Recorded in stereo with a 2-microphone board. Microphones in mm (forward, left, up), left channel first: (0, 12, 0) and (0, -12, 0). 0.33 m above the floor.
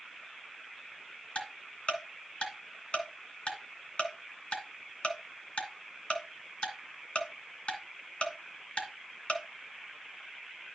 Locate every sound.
1.4 s ticking: 55° left (ahead or behind), 2.5 m